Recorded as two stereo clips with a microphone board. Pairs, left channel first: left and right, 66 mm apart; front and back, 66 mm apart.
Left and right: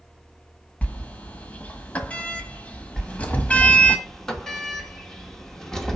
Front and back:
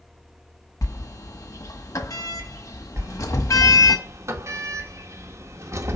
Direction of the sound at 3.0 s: 170° left.